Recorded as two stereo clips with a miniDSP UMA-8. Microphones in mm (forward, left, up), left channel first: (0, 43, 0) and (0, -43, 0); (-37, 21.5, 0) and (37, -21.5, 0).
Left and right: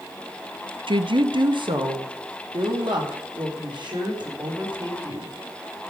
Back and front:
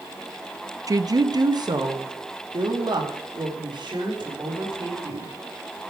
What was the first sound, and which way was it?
A woman speaking, 75° right.